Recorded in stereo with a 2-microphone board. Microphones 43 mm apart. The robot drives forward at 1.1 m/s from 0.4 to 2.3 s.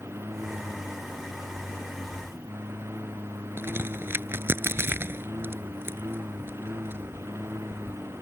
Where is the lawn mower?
80° right; by 8.2 s 85° right.